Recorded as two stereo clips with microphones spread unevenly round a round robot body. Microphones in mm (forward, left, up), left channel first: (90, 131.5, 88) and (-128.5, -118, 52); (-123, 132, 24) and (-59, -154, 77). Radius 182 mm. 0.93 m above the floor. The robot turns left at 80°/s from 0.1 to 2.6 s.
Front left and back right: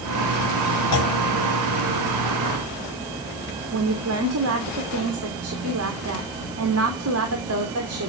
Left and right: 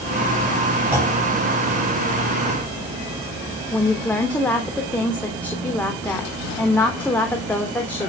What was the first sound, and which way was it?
A clunk, 5° left.